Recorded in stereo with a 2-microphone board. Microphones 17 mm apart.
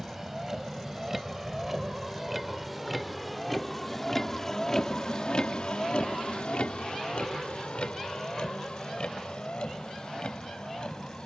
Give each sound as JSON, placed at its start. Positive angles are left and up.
{"t": 0.0, "sound": "a vehicle", "side_deg": -20}